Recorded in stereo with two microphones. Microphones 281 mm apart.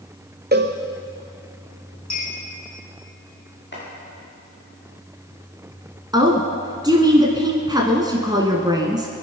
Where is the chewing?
I don't hear chewing.